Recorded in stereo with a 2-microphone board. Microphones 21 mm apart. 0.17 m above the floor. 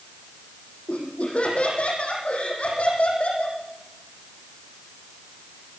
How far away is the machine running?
I don't hear a machine running.